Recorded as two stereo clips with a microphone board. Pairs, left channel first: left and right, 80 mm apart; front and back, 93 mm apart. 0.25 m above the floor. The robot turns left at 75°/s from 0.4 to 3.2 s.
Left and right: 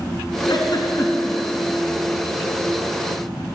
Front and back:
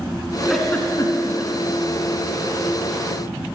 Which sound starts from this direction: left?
A giggle, at 0.5 s.